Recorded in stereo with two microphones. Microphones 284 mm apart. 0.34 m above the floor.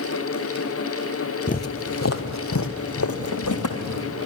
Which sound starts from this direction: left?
Footsteps, at 1.5 s.